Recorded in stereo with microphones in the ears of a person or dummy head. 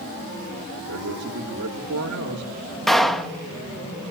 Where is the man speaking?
80° right, 3.5 m.